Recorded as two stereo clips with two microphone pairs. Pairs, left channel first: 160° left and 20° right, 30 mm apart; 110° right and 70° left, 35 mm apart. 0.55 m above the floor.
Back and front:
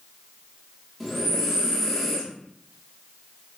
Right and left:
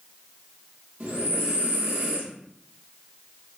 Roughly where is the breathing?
Left.